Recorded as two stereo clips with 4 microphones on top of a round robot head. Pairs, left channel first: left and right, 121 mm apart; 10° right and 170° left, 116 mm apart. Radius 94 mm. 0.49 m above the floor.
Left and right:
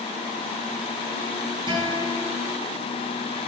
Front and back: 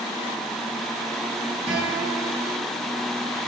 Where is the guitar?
135° right, 4.5 m.